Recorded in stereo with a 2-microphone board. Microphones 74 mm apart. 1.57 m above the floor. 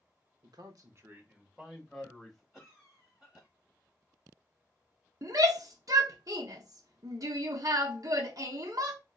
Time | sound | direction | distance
0.4 | a man speaking | 75° right (ahead or behind) | 0.7 m
2.5 | a cough | centre (ahead or behind) | 1.7 m
5.2 | a shout | 55° right (ahead or behind) | 0.7 m